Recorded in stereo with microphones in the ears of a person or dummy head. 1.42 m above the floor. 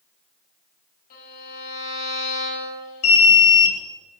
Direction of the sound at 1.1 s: 45° left (ahead or behind).